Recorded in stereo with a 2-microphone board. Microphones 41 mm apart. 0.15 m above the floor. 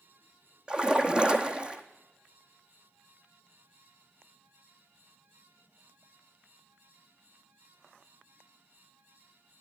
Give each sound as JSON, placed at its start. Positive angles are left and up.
{"t": 0.7, "sound": "a splash", "side_deg": -25, "distance_m": 1.2}